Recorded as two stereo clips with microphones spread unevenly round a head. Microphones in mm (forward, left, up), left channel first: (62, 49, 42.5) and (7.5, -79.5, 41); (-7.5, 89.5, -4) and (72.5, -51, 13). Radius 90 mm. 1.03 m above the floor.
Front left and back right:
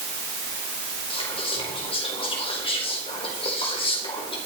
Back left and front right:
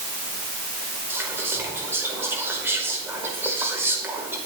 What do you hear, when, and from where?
1.1 s whispering: 15° left, 4.5 m